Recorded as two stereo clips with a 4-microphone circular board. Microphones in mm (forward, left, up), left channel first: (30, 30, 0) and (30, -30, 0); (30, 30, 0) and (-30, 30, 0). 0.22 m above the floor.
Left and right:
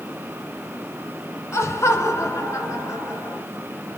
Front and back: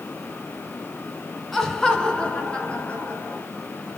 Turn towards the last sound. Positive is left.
turn(degrees=60)